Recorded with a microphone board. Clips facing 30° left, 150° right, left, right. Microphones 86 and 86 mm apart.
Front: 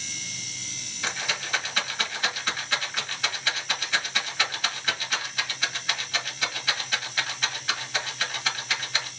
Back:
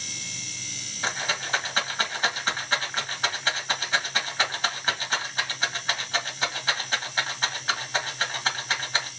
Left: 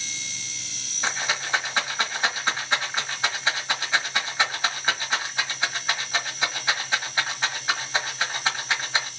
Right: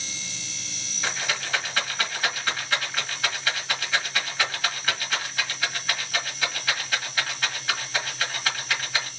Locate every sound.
1.0 s a rattle: 155° left, 1.5 m